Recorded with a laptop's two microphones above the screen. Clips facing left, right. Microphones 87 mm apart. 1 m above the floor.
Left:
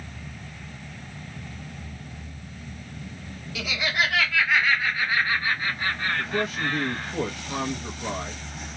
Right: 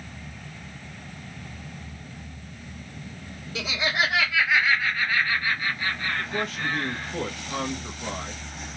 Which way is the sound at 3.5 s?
35° right (ahead or behind).